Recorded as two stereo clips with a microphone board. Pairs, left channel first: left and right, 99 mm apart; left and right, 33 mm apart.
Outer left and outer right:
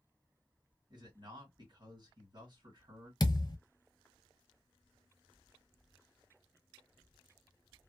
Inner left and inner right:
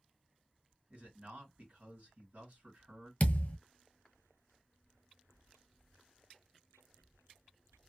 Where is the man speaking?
50° right (ahead or behind), 1.6 m.